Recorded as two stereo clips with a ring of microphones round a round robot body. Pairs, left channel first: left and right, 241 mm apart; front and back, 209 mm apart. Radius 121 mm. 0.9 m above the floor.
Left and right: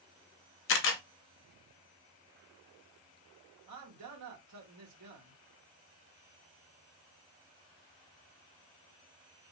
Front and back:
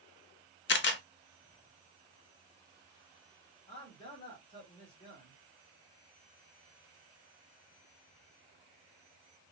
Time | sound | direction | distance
0.7 | a camera shutter | 45° left | 0.5 m
3.7 | a man speaking | 70° right | 1.0 m